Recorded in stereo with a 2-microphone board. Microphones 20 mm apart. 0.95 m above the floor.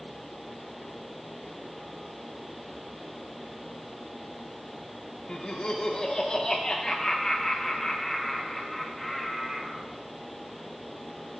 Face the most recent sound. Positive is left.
turn(degrees=-15)  # may be behind; listen again after turning